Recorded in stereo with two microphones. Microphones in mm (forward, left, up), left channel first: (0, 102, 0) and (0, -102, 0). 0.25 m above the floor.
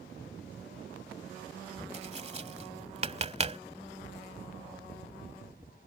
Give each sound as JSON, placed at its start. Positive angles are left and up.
{"t": 1.9, "sound": "tapping", "side_deg": -30}